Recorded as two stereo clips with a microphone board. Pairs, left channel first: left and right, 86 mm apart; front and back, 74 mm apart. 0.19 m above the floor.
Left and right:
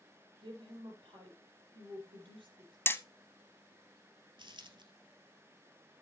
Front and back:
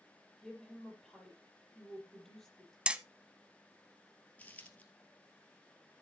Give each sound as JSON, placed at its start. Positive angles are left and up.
{"t": 0.4, "sound": "a woman speaking", "azimuth_deg": -85, "distance_m": 5.0}
{"t": 2.9, "sound": "hammering", "azimuth_deg": 120, "distance_m": 0.6}
{"t": 4.4, "sound": "a dropped coin", "azimuth_deg": -70, "distance_m": 1.8}